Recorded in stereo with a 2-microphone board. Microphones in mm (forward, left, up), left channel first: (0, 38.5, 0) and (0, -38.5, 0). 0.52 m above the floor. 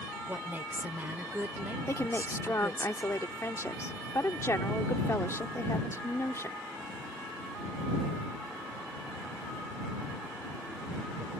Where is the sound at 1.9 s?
40° left (ahead or behind).